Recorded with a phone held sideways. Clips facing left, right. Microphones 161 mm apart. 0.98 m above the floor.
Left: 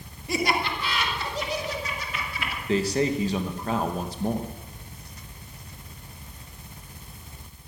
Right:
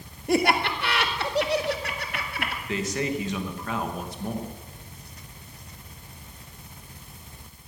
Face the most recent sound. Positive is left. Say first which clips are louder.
# left 5 dB
turn(degrees=35)  # may be behind; listen again after turning